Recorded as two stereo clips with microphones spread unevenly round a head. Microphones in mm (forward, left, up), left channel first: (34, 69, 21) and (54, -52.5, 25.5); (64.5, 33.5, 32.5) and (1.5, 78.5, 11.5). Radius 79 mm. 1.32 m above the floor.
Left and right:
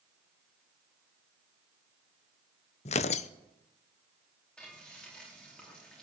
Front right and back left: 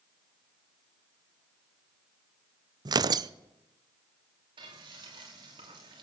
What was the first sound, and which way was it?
Tearing paper, 135° left.